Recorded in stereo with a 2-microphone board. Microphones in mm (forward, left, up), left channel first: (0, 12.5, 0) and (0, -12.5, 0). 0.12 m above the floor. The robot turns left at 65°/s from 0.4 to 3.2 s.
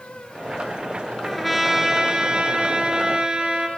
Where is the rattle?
I don't hear a rattle.